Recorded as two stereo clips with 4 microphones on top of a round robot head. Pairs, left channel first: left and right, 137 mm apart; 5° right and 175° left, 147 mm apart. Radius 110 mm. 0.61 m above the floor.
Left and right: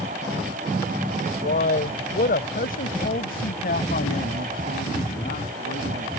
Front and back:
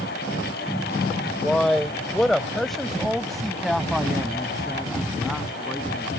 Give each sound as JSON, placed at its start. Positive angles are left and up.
{"t": 1.4, "sound": "a man speaking", "azimuth_deg": 80}